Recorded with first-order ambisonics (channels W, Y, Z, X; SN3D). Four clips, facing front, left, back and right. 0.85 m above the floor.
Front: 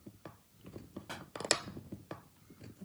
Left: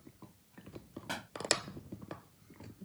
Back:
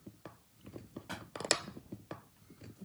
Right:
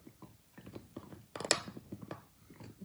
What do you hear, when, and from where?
1.1 s a pop: 90° left